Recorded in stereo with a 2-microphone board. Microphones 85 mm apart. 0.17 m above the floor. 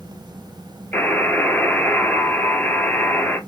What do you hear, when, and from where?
0.9 s a buzzer: 20° left (ahead or behind), 1.1 m